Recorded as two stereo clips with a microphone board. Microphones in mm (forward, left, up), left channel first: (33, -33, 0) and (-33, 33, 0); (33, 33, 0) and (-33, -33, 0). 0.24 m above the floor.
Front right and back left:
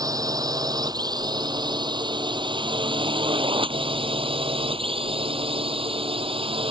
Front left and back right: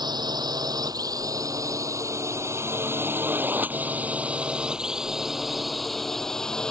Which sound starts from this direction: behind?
A drone, at 0.0 s.